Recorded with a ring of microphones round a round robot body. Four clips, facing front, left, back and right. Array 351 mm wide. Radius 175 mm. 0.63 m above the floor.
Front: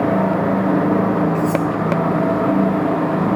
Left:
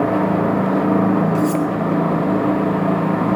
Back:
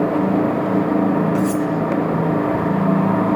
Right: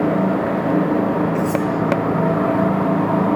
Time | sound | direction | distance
1.4 | cutlery clinking | 135° left | 3 m